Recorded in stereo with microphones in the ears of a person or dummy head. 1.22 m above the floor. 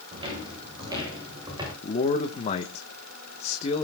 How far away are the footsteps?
About 8.5 m.